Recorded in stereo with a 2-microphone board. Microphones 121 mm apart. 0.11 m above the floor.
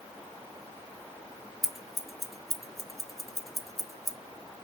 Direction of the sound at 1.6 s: Centre (ahead or behind).